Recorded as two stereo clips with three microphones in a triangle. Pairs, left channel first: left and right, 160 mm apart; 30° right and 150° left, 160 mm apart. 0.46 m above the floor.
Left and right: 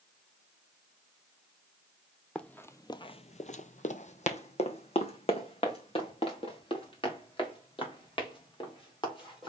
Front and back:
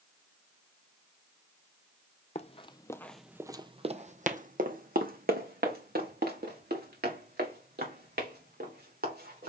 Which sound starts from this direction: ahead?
Running footsteps, at 2.4 s.